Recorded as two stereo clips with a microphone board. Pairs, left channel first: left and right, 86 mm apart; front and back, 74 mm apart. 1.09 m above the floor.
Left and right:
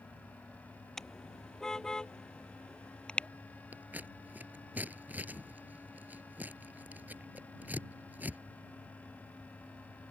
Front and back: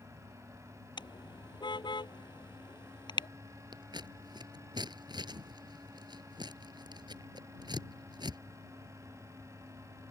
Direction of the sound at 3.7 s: 160° right.